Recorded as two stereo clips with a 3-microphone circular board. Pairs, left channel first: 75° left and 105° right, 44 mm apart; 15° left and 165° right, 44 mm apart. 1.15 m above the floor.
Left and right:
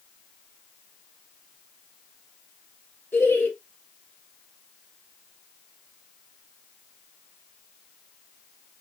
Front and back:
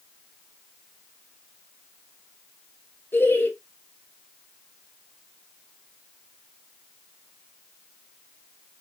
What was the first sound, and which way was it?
Laughter, 40° left.